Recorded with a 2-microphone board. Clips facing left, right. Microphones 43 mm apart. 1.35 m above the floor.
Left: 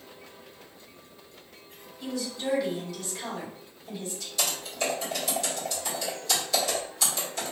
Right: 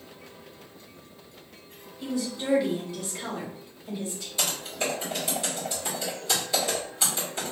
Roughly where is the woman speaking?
Right.